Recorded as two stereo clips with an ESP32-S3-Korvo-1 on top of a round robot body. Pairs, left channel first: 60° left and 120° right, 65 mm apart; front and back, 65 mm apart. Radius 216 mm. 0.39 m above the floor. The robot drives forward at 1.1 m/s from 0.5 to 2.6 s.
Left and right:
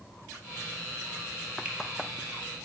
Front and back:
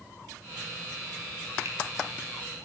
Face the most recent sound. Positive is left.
turn(degrees=175)